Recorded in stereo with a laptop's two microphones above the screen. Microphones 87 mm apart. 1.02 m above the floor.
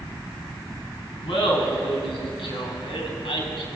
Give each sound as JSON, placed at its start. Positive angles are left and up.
{"t": 1.2, "sound": "laughter", "side_deg": 85, "distance_m": 8.0}